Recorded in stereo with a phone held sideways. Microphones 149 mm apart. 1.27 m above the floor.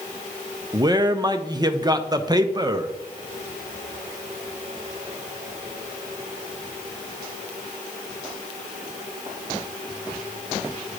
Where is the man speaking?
25° right (ahead or behind), 0.6 m.